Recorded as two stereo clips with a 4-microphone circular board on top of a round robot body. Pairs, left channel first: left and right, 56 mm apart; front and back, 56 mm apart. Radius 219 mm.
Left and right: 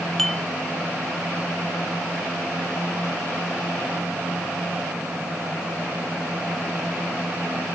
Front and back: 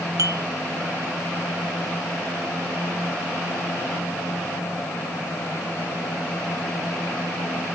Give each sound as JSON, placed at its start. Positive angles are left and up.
{"t": 0.2, "sound": "dishes clattering", "azimuth_deg": 170}